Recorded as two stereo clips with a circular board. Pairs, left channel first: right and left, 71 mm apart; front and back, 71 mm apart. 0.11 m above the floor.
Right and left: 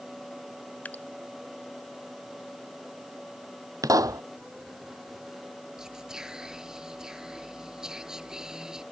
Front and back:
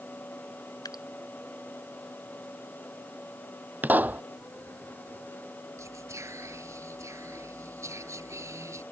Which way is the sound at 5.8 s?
165° left.